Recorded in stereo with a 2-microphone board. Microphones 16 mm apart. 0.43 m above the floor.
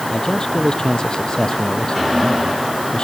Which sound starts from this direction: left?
A man speaking, at 0.1 s.